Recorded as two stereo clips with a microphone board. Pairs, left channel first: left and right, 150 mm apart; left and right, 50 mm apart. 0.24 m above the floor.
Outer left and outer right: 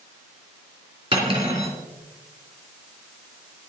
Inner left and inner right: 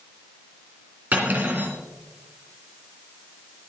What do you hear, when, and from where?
1.1 s cutlery clinking: 35° right (ahead or behind), 3 m